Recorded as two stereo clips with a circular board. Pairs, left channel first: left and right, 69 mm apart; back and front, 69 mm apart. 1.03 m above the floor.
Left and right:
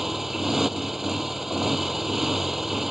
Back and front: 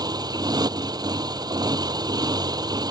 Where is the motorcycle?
5° right.